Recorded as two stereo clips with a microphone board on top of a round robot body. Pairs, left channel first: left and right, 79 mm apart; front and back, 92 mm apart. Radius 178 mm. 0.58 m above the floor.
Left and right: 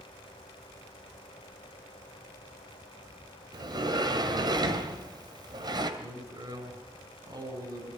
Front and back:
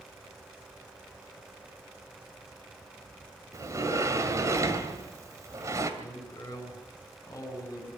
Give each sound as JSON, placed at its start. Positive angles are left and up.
{"t": 3.5, "sound": "a sliding door", "azimuth_deg": -125, "distance_m": 2.0}
{"t": 6.0, "sound": "a man speaking", "azimuth_deg": -60, "distance_m": 7.0}